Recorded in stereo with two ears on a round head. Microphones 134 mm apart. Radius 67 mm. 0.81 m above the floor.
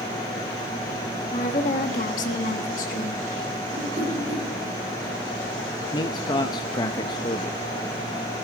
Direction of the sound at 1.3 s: 45° left (ahead or behind).